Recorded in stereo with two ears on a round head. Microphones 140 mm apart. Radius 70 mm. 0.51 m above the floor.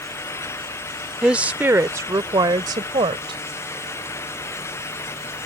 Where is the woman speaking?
5° right (ahead or behind); by 3.4 s 35° right (ahead or behind).